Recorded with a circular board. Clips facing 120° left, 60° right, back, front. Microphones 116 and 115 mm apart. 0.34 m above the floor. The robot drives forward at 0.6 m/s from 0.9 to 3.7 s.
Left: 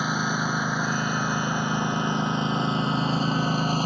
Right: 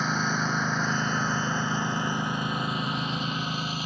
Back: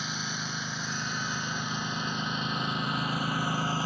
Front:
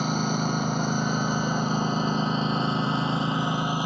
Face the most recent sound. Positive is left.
turn(degrees=70)